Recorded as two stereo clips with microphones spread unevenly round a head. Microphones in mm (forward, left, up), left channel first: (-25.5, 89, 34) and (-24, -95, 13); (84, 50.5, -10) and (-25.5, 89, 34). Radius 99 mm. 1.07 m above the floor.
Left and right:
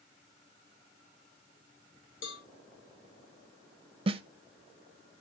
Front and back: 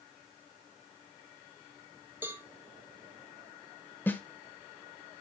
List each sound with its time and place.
2.2 s a cowbell: 80° left, 1.7 m
4.1 s a snare drum: 55° right, 0.8 m